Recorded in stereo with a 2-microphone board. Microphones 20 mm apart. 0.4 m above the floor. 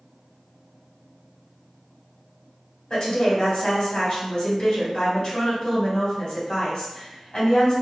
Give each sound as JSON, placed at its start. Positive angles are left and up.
{"t": 2.9, "sound": "a woman speaking", "side_deg": 45, "distance_m": 1.9}